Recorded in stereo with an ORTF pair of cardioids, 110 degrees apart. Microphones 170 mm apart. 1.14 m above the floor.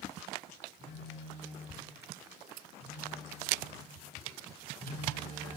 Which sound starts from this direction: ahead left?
A phone buzzing, at 0.8 s.